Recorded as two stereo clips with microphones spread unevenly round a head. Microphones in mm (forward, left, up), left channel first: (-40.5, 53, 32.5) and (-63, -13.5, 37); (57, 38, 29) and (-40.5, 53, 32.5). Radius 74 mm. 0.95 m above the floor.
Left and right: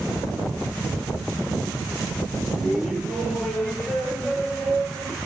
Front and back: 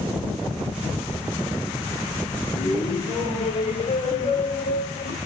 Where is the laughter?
25° right, 2.5 m; by 5.2 s 15° right, 5.5 m.